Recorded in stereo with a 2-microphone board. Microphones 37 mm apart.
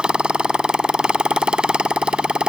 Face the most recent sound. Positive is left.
turn(degrees=-30)  # may be behind; listen again after turning